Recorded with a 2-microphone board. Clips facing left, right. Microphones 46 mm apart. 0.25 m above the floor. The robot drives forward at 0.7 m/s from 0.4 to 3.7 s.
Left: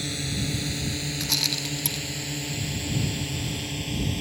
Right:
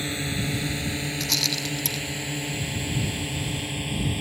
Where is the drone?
25° right (ahead or behind); by 4.2 s 15° right (ahead or behind).